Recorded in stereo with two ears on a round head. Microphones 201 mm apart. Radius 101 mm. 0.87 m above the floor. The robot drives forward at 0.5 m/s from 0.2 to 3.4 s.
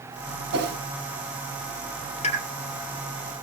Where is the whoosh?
50° right (ahead or behind), 5.5 m.